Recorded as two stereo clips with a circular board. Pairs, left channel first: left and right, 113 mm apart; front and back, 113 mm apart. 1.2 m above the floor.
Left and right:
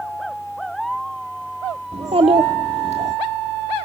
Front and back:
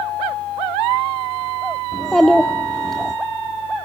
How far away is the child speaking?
About 1.4 m.